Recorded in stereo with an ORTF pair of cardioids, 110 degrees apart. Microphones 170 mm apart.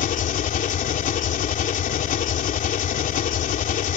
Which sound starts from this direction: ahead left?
An engine running, at 0.0 s.